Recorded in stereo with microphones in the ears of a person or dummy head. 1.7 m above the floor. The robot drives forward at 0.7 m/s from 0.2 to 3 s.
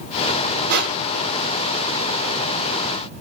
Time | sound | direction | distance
0.7 | crushing | 55° right (ahead or behind) | 1.8 m